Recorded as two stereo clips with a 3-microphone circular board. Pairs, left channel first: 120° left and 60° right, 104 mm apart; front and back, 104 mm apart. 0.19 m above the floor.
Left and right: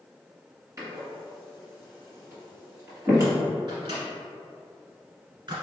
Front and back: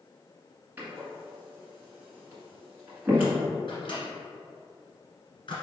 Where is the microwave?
30° right, 1.7 m.